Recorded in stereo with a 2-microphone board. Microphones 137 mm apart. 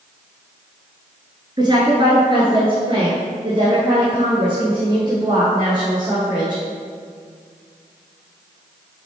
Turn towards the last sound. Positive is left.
turn(degrees=-30)  # may be behind; listen again after turning